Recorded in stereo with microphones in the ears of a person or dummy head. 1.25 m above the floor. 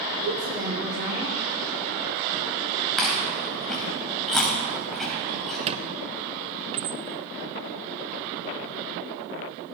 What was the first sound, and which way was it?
A woman speaking, 55° right (ahead or behind).